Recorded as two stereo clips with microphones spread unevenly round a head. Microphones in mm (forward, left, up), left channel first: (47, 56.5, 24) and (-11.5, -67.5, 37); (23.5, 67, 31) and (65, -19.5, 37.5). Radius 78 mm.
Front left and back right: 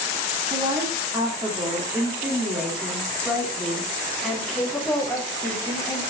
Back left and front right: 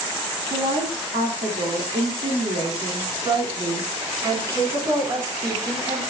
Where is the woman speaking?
50° right, 3.5 m; by 6.0 s 10° right, 4 m.